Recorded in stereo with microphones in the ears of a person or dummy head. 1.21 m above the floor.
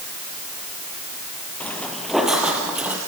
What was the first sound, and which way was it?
Footsteps, 5° left (ahead or behind).